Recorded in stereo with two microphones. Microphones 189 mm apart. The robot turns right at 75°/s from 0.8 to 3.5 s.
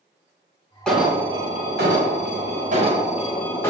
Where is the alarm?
175° left, 1.6 m; by 3.7 s 15° left, 1.6 m.